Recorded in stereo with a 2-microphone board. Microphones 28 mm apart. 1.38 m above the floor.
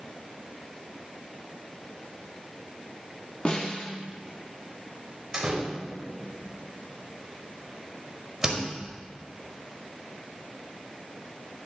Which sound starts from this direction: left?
A snare drum, at 3.5 s.